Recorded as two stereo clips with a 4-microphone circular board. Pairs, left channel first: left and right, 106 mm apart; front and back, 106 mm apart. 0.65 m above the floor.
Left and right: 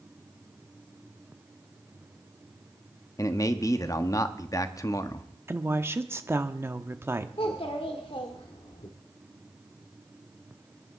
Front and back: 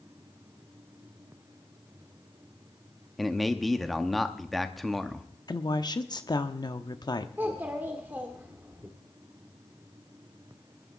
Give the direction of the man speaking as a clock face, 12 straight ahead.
9 o'clock.